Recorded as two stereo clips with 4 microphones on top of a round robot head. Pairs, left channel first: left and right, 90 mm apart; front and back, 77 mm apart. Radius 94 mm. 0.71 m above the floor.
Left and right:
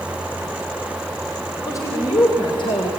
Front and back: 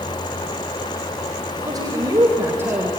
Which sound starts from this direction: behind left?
A man speaking, at 1.6 s.